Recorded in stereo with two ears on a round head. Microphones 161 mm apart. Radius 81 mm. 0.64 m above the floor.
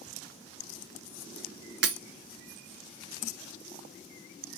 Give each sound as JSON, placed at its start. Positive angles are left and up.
{"t": 1.8, "sound": "breaking glass", "side_deg": -60, "distance_m": 0.9}